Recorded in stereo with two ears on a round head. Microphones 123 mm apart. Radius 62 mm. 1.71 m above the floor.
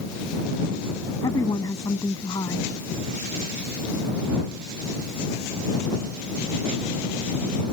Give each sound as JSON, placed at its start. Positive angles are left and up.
{"t": 1.2, "sound": "a woman speaking", "side_deg": 20}